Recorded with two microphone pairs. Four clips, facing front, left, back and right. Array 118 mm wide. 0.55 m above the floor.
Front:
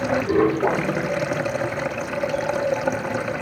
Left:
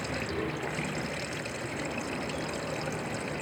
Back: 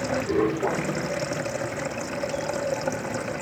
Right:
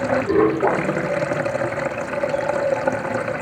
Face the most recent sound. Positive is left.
turn(degrees=-70)